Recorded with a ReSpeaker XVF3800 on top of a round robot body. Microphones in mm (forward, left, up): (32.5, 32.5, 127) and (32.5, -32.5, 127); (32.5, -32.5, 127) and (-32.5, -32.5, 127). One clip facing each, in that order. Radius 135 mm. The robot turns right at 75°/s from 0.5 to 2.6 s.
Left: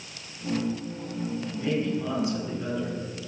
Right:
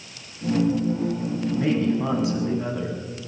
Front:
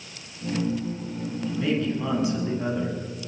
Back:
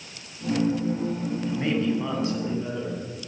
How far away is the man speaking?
About 7.5 m.